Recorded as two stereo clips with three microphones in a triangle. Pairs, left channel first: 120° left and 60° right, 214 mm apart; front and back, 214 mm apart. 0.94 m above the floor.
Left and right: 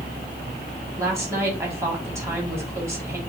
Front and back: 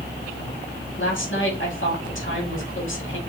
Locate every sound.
1.0 s a woman speaking: 20° left, 2 m